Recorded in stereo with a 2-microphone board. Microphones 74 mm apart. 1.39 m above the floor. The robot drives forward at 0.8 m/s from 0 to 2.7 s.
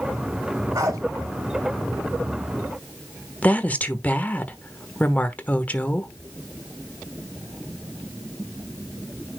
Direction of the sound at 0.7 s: 55° right (ahead or behind).